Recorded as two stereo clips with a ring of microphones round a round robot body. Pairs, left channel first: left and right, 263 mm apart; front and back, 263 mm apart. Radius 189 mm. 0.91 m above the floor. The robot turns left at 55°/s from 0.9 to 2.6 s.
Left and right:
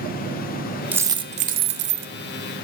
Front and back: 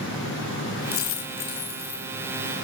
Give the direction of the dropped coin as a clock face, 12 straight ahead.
12 o'clock.